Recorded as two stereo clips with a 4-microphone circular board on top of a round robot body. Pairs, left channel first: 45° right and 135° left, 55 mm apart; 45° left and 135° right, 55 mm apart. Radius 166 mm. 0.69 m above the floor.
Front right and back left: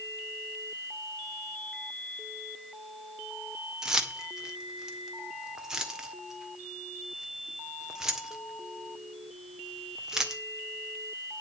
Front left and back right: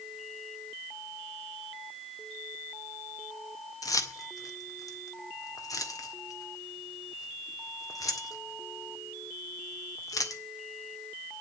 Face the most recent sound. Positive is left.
turn(degrees=55)